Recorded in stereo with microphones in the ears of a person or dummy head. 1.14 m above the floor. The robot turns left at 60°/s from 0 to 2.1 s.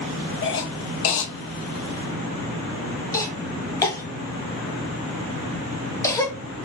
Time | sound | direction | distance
0.4 | a cough | 60° left (ahead or behind) | 0.7 m